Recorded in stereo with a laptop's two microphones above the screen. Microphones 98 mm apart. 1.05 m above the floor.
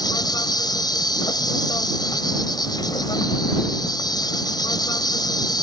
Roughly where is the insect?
Left.